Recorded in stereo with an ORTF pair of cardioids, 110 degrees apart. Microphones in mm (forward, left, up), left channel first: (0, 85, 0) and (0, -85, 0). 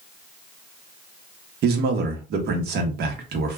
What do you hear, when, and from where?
1.6 s a man speaking: 70° right, 1.2 m